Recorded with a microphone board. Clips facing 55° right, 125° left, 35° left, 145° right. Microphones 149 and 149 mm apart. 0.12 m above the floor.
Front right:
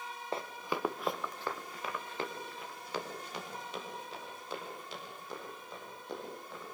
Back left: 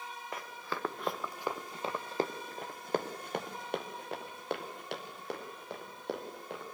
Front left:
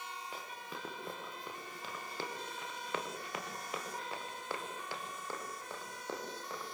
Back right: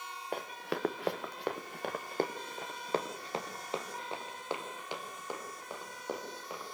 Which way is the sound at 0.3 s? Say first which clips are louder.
Front right 4 dB, back right 9 dB; 115° right.